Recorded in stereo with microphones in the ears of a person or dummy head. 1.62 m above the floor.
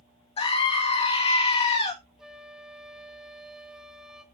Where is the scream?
30° left (ahead or behind), 2.5 m.